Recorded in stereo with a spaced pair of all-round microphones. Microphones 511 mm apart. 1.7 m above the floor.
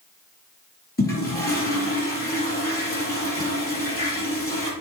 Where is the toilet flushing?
25° left (ahead or behind), 3 m.